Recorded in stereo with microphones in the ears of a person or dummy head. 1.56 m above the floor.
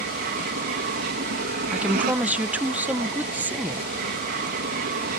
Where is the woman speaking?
10° right (ahead or behind).